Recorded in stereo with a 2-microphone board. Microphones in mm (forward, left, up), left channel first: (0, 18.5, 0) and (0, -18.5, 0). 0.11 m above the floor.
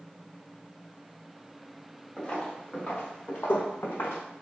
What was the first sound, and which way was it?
Footsteps, 25° left (ahead or behind).